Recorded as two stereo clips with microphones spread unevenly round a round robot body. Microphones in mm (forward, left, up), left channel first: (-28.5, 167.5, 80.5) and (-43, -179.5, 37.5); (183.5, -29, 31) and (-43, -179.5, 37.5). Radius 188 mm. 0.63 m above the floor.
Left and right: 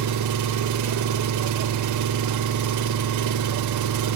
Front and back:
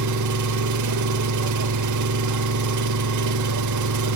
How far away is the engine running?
About 1.1 m.